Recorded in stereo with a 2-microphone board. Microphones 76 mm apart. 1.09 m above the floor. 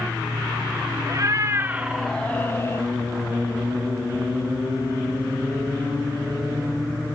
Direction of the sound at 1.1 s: 45° right (ahead or behind).